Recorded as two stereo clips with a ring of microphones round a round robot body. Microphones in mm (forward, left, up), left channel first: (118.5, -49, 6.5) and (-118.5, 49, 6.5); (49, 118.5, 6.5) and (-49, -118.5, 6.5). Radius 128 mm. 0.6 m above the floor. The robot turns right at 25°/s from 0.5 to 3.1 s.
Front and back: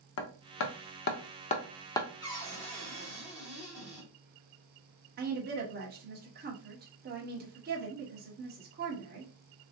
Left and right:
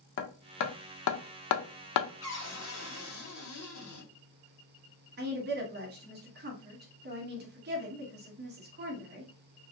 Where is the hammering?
15° left, 0.5 m; by 2.1 s 55° left, 0.5 m.